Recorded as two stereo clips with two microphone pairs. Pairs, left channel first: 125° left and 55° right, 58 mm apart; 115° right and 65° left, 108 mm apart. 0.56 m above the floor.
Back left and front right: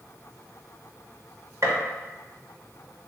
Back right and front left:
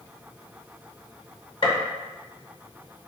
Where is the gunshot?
85° right, 1.0 m.